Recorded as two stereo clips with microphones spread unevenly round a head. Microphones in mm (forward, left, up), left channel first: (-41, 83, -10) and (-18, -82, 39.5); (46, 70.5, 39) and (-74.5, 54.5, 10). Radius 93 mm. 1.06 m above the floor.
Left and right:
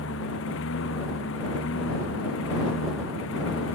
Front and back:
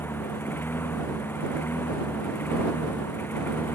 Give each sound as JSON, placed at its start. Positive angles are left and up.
{"t": 0.0, "sound": "a lawn mower", "azimuth_deg": 80}